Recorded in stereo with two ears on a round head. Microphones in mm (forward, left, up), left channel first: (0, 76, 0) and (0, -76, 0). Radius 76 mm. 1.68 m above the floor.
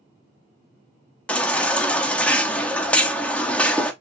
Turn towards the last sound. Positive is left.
turn(degrees=5)  # may be behind; listen again after turning